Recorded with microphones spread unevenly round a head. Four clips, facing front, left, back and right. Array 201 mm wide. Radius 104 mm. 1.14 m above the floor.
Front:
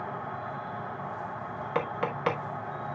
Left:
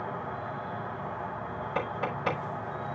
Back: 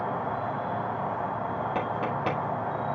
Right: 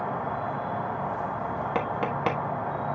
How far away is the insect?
About 0.8 m.